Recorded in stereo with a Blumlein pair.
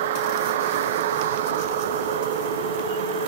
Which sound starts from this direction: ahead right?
A vehicle, at 0.0 s.